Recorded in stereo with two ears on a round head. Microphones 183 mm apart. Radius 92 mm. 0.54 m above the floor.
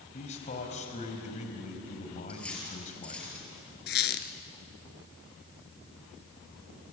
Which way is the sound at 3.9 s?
50° left (ahead or behind).